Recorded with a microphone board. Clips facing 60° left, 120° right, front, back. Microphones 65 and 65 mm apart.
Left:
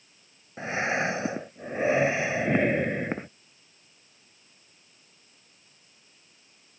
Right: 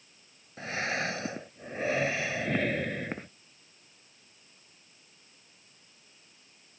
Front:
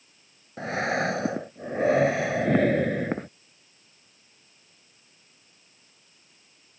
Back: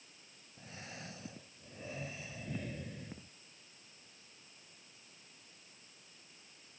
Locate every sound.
0.6 s breathing: 5° right